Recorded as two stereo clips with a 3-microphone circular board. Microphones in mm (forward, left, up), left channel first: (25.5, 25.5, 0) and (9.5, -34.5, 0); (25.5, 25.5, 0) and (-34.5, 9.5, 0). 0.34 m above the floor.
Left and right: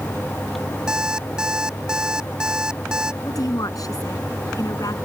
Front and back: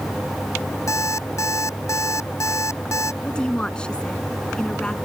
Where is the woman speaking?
90° left.